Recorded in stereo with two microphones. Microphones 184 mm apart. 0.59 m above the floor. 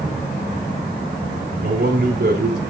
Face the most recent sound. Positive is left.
turn(degrees=-65)  # may be behind; listen again after turning